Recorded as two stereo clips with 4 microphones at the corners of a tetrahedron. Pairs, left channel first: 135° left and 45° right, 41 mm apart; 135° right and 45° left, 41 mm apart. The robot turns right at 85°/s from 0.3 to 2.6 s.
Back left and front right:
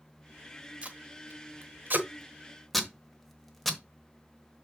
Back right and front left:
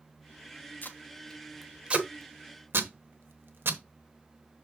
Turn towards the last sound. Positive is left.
turn(degrees=50)